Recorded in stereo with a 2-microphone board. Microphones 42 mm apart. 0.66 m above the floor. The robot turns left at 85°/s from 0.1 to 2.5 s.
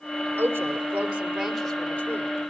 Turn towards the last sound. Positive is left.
turn(degrees=105)